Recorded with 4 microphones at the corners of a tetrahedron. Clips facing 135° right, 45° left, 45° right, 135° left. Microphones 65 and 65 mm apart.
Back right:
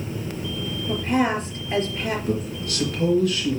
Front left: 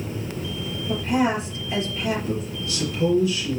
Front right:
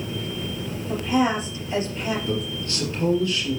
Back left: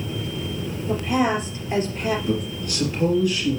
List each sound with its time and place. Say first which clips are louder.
0.9 s a woman speaking: even, even; 175° right, 3.5 m
2.3 s a man speaking: back right 2 dB, back left 2 dB; 155° right, 4 m